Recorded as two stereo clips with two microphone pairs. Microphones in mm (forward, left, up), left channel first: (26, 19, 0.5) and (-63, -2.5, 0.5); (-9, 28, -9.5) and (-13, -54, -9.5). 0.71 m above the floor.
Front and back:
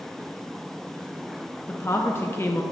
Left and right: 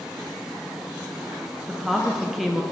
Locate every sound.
1.7 s a woman speaking: 10° right, 0.6 m